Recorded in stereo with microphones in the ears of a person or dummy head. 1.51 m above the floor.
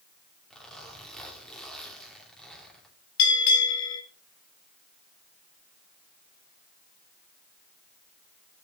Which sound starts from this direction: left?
A bell, at 3.2 s.